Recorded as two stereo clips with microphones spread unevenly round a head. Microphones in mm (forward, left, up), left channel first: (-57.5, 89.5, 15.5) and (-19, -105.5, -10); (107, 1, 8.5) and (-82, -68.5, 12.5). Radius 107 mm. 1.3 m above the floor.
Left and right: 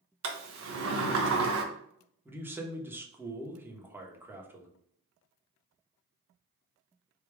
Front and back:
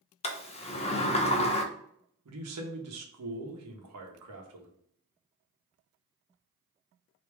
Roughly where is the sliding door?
Ahead right.